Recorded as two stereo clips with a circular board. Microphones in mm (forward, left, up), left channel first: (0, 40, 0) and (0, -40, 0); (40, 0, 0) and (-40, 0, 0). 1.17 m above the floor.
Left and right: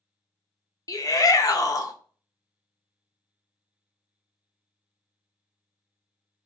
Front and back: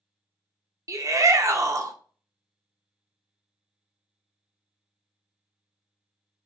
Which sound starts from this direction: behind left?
A shout, at 0.9 s.